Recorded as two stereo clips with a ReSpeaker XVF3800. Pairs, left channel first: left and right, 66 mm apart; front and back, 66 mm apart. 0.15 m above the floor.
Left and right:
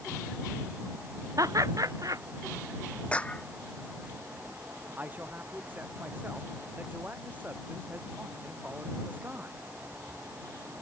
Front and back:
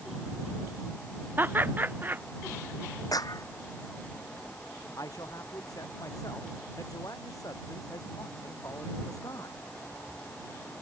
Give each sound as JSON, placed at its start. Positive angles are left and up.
{"t": 1.4, "sound": "laughter", "azimuth_deg": -120}
{"t": 3.1, "sound": "a clap", "azimuth_deg": 20}
{"t": 5.0, "sound": "a man speaking", "azimuth_deg": -25}